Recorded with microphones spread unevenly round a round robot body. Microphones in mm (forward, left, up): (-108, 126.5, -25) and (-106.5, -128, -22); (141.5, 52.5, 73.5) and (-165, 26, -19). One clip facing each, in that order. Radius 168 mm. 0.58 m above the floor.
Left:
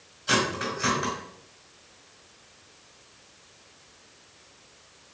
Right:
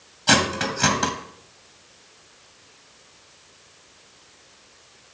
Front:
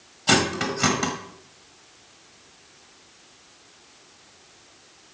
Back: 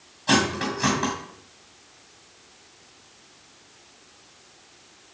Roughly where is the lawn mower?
I don't hear a lawn mower.